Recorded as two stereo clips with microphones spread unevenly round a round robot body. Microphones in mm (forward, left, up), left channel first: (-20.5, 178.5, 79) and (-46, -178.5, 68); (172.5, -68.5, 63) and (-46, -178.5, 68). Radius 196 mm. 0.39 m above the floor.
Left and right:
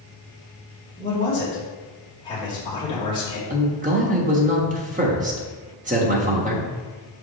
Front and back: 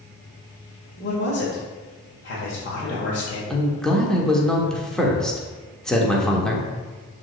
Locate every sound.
1.0 s a man speaking: 10° left, 1.8 m
3.5 s a man speaking: 55° right, 1.3 m